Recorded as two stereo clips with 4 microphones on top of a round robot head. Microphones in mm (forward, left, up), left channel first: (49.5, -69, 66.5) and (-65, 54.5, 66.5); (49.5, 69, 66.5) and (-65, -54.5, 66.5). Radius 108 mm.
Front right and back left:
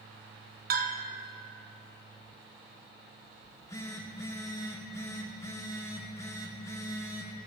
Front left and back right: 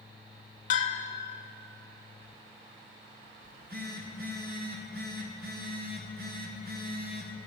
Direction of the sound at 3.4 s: 120° right.